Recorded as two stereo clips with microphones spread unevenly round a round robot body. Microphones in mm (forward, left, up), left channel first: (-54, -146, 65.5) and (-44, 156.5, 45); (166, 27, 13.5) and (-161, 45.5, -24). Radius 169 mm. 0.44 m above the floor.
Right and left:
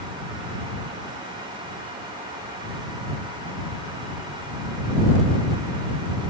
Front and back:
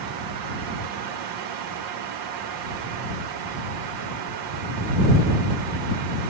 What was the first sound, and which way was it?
Only background noise.